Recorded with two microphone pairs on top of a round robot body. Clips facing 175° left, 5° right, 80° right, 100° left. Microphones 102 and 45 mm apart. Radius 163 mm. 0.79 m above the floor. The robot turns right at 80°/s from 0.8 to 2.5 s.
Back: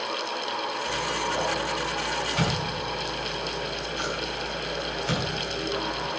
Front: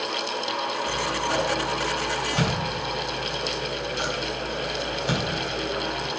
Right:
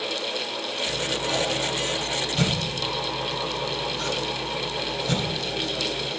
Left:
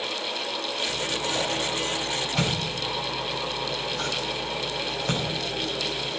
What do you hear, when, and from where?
0.9 s scissors: 65° right, 6.5 m; by 6.1 s 65° left, 6.5 m